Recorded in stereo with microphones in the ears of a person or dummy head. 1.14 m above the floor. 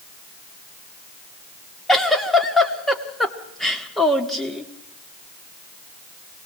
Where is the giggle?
Centre (ahead or behind), 1.6 m.